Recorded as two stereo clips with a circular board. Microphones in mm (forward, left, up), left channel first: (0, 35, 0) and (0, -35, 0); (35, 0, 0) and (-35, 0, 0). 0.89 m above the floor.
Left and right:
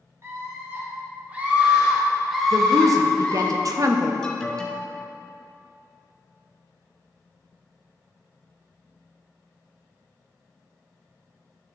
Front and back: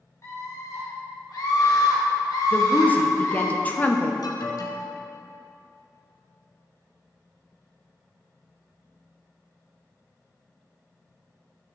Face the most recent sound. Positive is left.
turn(degrees=10)